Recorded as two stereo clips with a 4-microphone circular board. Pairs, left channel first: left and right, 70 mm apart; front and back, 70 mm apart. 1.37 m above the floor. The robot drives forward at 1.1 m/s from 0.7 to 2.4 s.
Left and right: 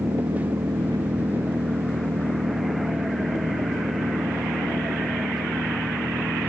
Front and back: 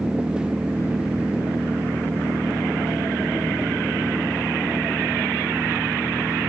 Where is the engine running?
105° right.